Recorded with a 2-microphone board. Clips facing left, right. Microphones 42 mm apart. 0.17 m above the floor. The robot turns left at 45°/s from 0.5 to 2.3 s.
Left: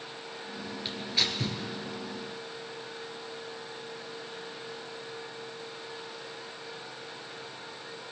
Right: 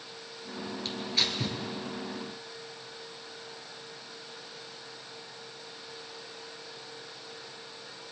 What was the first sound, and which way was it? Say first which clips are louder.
Tearing paper: even; 20° left (ahead or behind).